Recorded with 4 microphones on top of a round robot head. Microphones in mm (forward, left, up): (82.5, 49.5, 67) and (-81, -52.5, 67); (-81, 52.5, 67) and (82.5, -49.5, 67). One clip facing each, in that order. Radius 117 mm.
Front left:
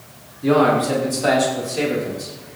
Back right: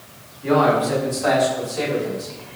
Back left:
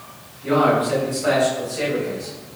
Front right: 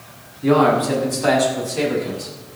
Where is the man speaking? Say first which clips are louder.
Front left 2 dB, front right 3 dB; 15° right, 7 m; by 2.4 s 35° right, 5.5 m.